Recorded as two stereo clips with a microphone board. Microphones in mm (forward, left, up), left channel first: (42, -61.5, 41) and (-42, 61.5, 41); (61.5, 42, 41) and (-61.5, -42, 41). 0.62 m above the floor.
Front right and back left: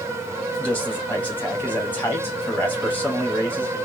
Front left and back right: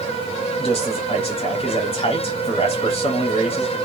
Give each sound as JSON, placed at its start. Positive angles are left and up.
{"t": 0.6, "sound": "a man speaking", "azimuth_deg": 15, "distance_m": 0.9}